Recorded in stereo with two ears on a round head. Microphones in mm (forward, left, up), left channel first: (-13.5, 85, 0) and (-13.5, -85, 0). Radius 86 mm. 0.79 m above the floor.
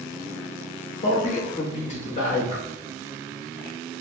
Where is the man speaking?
40° left (ahead or behind), 1.0 m.